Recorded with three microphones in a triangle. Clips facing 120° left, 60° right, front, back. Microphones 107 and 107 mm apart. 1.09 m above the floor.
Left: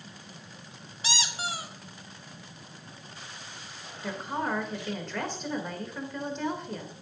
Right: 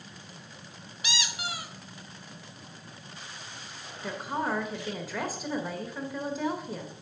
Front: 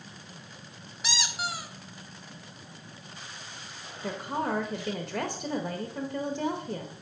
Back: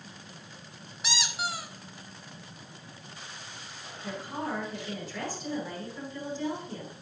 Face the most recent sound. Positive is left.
turn(degrees=25)